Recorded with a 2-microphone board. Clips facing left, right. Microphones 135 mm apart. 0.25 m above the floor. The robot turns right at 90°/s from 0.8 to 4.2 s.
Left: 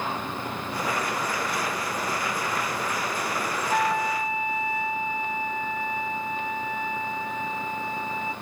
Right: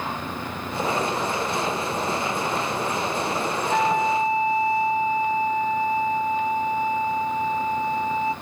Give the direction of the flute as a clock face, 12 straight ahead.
6 o'clock.